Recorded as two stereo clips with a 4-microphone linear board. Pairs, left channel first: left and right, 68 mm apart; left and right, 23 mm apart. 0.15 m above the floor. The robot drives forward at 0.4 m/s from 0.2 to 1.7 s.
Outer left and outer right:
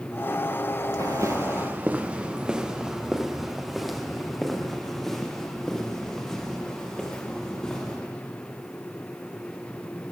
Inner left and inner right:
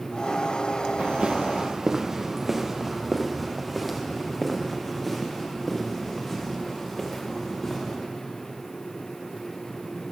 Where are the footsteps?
55° right (ahead or behind), 0.9 m; by 8.0 s 10° left (ahead or behind), 5 m.